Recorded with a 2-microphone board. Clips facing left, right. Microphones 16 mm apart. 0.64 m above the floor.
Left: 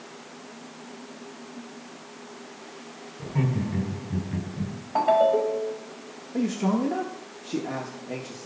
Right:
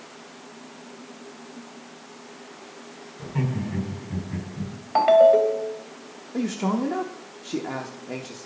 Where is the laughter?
30° right (ahead or behind), 4.5 m; by 4.7 s 15° right (ahead or behind), 5.5 m.